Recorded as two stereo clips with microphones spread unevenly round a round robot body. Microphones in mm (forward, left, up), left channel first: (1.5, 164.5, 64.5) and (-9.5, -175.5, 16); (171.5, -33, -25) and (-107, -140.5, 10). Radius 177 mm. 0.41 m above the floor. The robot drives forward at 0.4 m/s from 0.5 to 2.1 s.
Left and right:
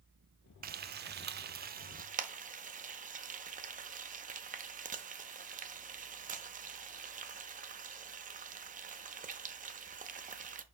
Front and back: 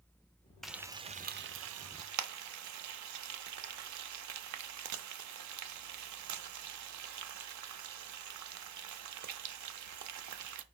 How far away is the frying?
About 0.5 m.